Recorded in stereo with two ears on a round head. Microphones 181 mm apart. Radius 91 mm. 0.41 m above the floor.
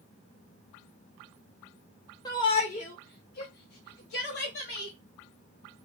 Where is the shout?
20° left (ahead or behind), 0.7 m; by 4.9 s 60° left (ahead or behind), 1.8 m.